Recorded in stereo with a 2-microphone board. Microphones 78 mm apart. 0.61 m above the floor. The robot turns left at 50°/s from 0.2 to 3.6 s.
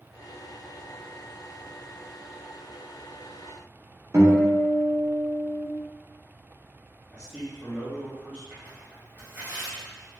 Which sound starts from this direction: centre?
A man speaking, at 7.1 s.